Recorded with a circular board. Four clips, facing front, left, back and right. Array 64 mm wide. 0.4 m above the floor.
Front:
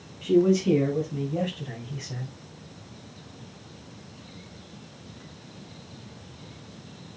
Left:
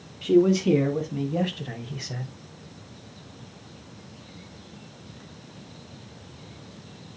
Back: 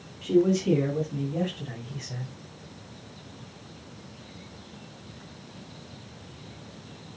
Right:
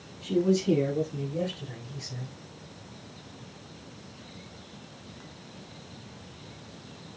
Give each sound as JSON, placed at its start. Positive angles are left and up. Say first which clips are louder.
{"t": 0.2, "sound": "a man speaking", "louder": "left 6 dB, front 2 dB", "azimuth_deg": 85, "distance_m": 3.5}